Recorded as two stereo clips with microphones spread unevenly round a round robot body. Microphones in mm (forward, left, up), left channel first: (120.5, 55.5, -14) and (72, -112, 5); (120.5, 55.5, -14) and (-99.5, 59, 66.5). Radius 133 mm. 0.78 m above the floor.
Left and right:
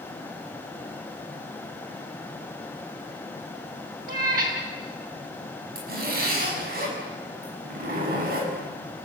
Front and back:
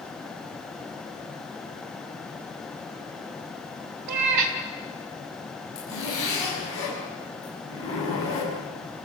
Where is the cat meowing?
170° right, 2.0 m.